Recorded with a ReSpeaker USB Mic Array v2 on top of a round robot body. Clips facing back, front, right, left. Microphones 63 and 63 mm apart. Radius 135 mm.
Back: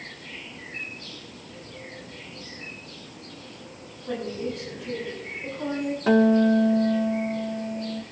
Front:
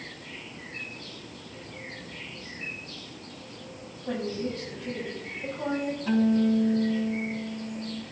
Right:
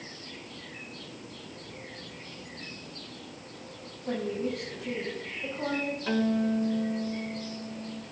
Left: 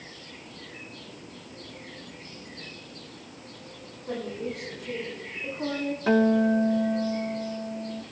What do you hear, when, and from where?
4.1 s a woman speaking: 55° right, 7 m
6.1 s a guitar: 150° left, 0.5 m